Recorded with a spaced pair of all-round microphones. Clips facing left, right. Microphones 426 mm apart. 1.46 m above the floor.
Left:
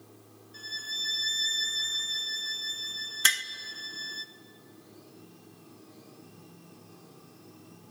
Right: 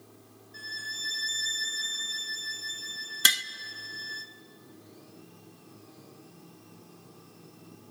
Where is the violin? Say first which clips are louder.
Even; 40° right (ahead or behind), 1.2 m.